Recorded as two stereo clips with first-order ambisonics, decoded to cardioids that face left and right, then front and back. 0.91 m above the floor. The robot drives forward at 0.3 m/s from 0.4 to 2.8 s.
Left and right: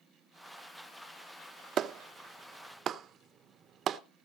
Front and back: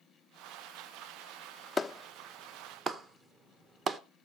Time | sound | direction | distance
1.8 | a clap | 70° right | 0.6 m